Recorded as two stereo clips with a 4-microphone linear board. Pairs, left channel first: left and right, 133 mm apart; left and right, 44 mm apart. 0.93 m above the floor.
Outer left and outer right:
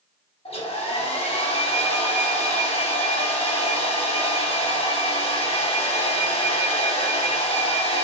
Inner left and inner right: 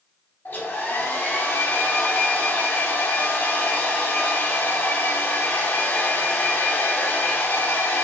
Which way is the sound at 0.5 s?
45° left (ahead or behind).